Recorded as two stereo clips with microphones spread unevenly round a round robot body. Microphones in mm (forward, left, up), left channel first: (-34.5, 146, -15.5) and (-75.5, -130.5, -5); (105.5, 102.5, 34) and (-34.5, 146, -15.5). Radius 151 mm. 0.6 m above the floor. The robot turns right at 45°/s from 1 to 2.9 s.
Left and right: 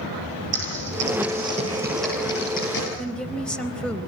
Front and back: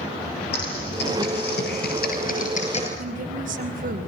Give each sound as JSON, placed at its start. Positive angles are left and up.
{"t": 0.5, "sound": "typing on a keyboard", "azimuth_deg": -55, "distance_m": 9.5}
{"t": 3.0, "sound": "a woman speaking", "azimuth_deg": 170, "distance_m": 3.5}